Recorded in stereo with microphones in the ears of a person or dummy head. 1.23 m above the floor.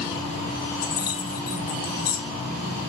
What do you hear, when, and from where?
0.8 s keys jangling: 50° left (ahead or behind), 1.6 m